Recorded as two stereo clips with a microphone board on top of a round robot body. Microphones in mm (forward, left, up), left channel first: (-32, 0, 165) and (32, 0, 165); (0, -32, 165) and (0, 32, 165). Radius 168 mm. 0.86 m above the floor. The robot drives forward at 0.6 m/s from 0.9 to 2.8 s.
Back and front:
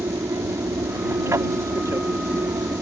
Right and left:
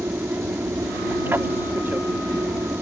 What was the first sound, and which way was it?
An aircraft, 35° left.